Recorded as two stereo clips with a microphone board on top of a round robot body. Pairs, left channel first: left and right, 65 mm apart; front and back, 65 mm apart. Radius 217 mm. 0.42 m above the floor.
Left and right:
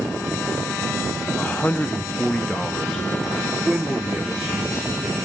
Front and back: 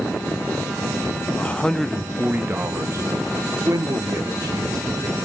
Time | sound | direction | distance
1.4 | a man speaking | 45° left | 1.0 m